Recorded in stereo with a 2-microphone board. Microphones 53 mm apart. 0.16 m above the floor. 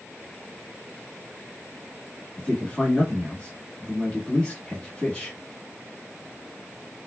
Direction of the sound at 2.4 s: 20° left (ahead or behind).